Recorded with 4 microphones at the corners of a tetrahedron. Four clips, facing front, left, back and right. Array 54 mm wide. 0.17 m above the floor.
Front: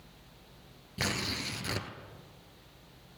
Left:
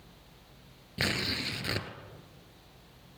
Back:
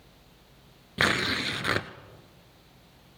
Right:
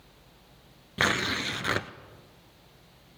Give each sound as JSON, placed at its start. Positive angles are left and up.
{"t": 1.0, "sound": "tearing paper", "azimuth_deg": -145, "distance_m": 1.0}